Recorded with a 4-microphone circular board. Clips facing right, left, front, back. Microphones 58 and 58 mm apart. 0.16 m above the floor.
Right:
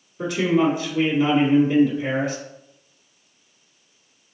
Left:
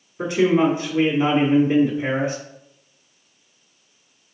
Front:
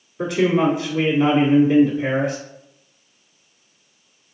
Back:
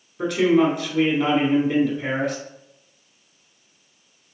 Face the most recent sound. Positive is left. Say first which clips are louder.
# left 2 dB, even
turn(degrees=80)